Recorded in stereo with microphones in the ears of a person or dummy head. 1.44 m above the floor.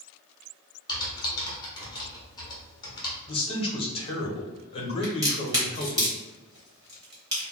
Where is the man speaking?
30° left (ahead or behind), 1.1 m.